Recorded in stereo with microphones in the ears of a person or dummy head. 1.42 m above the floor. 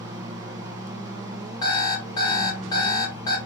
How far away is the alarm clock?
About 1.4 m.